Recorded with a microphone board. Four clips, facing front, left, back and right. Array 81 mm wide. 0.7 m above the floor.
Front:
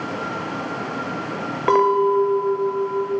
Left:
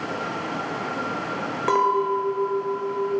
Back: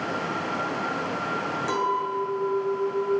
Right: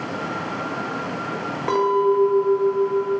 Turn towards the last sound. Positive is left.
turn(degrees=10)